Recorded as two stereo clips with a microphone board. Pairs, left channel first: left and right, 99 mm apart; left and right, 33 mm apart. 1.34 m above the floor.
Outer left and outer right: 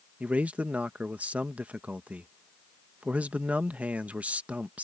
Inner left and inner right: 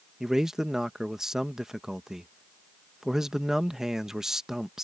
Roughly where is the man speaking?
Centre.